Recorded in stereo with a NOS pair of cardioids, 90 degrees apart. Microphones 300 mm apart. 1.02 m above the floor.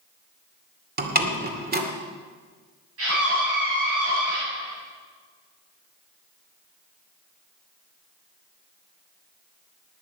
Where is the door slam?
30° right, 2.5 m.